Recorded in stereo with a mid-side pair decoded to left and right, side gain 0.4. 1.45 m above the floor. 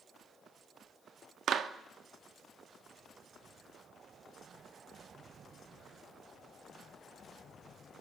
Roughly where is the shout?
I don't hear a shout.